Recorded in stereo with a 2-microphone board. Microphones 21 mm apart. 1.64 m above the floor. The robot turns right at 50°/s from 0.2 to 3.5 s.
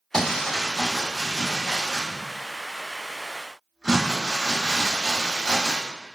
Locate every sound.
0.1 s crumpling: 125° left, 1.6 m; by 5.8 s 70° right, 1.6 m